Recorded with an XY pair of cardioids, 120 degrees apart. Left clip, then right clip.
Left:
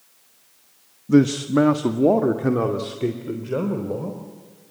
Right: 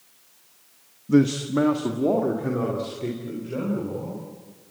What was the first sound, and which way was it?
A man speaking, 15° left.